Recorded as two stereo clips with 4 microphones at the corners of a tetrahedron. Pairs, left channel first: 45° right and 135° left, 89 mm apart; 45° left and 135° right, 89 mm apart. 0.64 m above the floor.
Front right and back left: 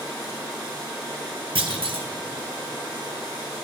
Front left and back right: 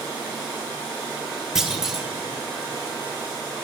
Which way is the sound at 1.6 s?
140° left.